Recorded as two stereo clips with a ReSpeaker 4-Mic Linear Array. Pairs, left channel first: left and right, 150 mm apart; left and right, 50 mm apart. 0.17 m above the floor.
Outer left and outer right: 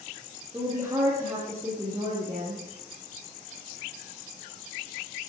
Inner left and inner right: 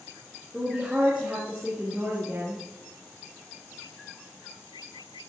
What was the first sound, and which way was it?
A woman speaking, 15° right (ahead or behind).